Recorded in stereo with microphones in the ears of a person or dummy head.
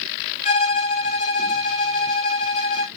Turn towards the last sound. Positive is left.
turn(degrees=35)  # may be behind; listen again after turning